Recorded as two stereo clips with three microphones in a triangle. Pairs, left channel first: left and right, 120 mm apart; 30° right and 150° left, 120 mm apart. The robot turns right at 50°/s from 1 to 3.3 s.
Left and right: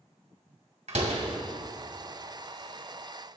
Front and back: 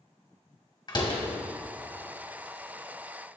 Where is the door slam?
80° right, 2 m; by 1.2 s 70° right, 2 m.